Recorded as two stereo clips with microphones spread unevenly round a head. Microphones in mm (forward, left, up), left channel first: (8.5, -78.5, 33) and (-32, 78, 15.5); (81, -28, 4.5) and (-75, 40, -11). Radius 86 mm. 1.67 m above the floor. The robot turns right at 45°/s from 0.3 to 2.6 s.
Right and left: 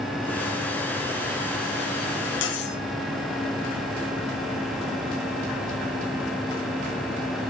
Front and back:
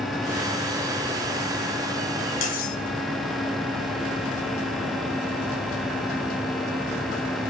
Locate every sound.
2.4 s cutlery clinking: 65° right, 2 m; by 2.8 s 60° right, 2 m